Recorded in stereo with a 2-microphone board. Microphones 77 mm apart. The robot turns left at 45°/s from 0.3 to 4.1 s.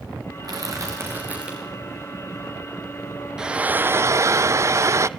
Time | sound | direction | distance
0.4 | crushing | 120° right | 7 m
3.4 | frying | 10° right | 0.7 m